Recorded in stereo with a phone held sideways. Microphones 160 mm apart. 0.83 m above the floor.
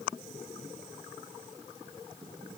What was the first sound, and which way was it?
Only background noise.